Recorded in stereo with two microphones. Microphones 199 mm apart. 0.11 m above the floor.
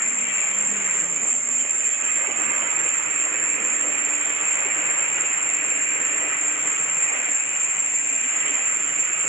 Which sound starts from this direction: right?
An insect, at 0.0 s.